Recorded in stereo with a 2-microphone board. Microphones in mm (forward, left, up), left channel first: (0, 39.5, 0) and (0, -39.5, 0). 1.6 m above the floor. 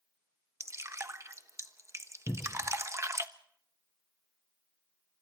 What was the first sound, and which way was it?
Dripping, 35° right (ahead or behind).